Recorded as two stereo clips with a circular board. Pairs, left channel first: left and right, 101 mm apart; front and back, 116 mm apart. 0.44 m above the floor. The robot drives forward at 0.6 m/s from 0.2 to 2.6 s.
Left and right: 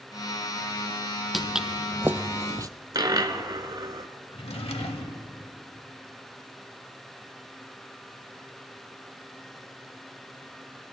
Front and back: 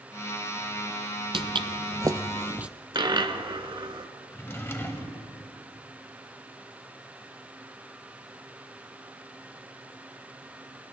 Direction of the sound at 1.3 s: Straight behind.